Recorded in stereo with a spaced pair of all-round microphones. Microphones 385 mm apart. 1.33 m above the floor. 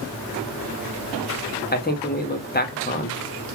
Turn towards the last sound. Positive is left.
turn(degrees=25)  # may be behind; listen again after turning